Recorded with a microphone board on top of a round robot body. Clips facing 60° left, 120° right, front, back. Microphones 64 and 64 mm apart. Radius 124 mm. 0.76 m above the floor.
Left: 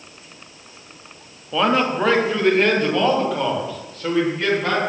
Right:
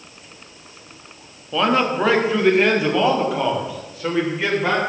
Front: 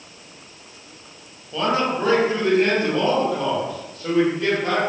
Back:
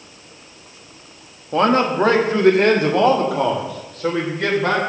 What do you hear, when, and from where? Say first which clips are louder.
1.5 s a man speaking: even, back 5 dB; 145° left, 1.7 m; by 4.8 s 165° left, 4 m